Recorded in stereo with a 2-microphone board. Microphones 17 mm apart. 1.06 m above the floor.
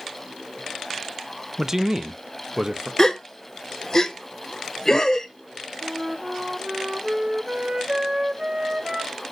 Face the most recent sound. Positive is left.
turn(degrees=-45)  # may be behind; listen again after turning